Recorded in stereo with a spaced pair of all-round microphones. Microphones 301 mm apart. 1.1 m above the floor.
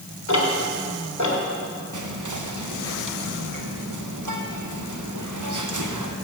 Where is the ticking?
65° left (ahead or behind), 1.7 m.